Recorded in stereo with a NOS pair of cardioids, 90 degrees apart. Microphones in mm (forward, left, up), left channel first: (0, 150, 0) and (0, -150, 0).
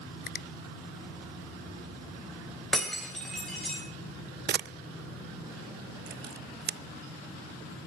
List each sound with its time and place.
0.3 s a finger snap: 30° left, 0.6 m
2.7 s breaking glass: straight ahead, 9 m
4.5 s a camera shutter: 35° right, 0.5 m